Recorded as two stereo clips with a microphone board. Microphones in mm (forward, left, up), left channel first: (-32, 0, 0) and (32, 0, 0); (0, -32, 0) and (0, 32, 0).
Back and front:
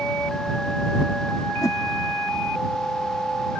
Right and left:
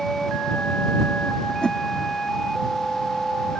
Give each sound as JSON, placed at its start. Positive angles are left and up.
{"t": 1.6, "sound": "a whoosh", "azimuth_deg": -165}